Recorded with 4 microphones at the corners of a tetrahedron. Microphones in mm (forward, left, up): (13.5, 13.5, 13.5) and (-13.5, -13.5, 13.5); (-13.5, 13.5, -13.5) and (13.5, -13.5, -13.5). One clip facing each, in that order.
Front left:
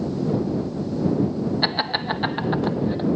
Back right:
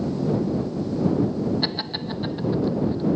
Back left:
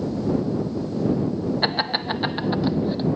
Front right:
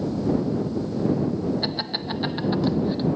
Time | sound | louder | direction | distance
1.6 | laughter | front left 5 dB, back left 5 dB | 100° left | ?